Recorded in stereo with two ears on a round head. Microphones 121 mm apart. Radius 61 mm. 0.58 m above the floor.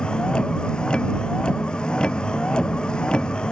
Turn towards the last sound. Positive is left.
turn(degrees=5)  # may be behind; listen again after turning